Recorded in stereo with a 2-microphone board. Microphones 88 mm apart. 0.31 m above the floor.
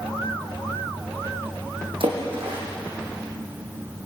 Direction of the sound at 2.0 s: 70° right (ahead or behind).